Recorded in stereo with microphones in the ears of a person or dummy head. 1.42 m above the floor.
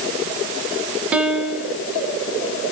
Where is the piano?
5° right (ahead or behind), 1.5 m.